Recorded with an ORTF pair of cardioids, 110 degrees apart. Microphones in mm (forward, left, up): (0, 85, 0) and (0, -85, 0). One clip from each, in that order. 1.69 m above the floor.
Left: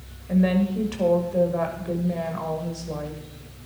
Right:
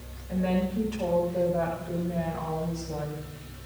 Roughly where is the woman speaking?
Ahead left.